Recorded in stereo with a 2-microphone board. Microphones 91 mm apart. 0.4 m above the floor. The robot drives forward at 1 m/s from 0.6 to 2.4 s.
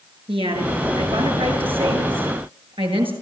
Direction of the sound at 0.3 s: 80° right.